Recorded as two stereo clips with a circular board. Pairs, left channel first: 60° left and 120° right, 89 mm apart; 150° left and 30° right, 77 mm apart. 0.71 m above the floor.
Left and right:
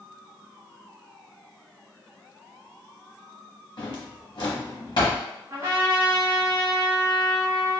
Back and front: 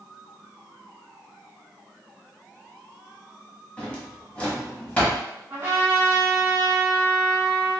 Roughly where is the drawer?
Left.